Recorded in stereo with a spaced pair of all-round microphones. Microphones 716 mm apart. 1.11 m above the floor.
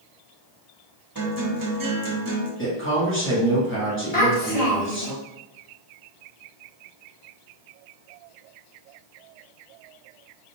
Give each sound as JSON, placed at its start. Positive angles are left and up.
{"t": 1.1, "sound": "a guitar", "side_deg": -30, "distance_m": 0.7}
{"t": 2.6, "sound": "a man speaking", "side_deg": 15, "distance_m": 1.4}
{"t": 4.1, "sound": "a child speaking", "side_deg": 55, "distance_m": 1.6}